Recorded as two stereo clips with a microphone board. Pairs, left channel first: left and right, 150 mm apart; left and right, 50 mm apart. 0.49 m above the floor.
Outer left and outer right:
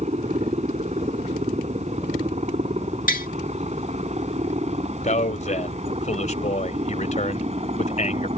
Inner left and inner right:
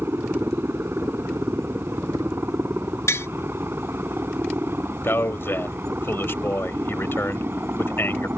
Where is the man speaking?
55° left (ahead or behind).